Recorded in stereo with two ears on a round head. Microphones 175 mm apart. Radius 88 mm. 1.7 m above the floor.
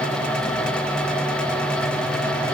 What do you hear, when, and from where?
Only background noise.